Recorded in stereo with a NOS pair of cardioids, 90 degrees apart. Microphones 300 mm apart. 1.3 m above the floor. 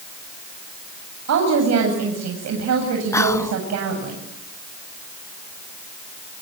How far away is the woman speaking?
About 8.5 m.